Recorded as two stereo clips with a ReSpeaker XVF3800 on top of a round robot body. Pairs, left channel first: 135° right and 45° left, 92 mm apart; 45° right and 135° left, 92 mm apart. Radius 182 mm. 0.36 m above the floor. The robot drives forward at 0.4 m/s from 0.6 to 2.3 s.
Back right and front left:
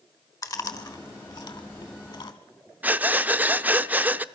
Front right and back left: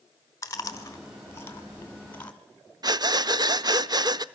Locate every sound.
0.4 s chewing: 95° right, 1.7 m; by 2.3 s 120° right, 1.9 m
2.8 s breathing: 110° left, 0.7 m